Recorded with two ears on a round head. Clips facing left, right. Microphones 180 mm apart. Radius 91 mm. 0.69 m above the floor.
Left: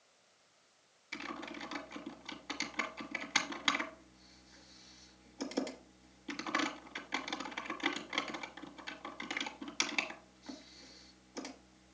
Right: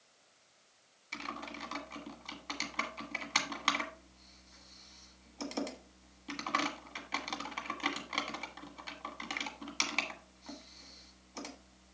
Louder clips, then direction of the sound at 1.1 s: Even; 5° left (ahead or behind).